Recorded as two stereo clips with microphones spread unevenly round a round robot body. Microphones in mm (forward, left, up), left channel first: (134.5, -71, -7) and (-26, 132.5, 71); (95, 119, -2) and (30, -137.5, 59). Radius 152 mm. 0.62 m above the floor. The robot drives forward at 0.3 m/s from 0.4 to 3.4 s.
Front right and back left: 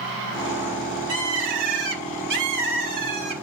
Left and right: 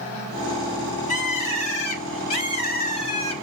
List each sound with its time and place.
1.1 s a bird: 135° left, 4 m; by 3.3 s 145° left, 4.5 m